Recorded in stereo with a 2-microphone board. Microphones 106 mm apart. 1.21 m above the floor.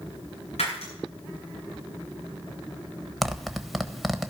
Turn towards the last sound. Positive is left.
turn(degrees=0)  # may be behind; listen again after turning